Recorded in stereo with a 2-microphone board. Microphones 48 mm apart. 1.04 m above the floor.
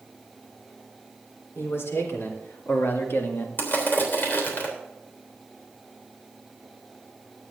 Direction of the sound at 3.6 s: 45° left (ahead or behind).